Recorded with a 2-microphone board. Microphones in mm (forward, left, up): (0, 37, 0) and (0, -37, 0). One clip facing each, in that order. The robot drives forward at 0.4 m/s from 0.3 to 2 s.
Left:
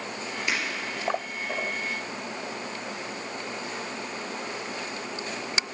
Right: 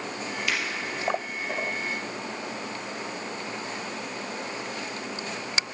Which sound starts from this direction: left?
Breaking glass, at 0.5 s.